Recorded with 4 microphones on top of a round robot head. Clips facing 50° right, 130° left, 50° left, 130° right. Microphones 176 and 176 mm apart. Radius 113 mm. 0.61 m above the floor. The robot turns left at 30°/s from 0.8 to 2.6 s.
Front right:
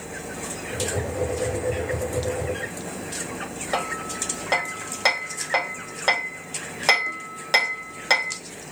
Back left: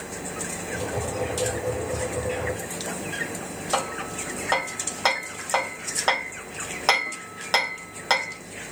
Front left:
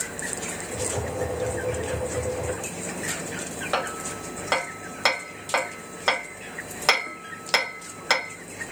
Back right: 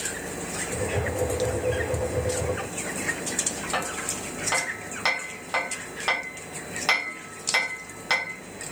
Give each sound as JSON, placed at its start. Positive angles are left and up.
{"t": 3.7, "sound": "hammering", "azimuth_deg": 25, "distance_m": 2.5}